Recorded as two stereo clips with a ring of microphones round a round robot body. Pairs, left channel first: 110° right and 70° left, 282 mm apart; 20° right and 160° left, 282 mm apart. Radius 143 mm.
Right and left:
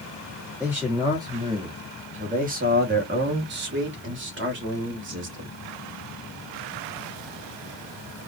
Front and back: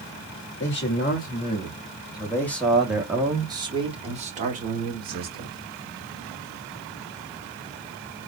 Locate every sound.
0.6 s a man speaking: 15° right, 1.6 m; by 5.5 s 110° left, 2.5 m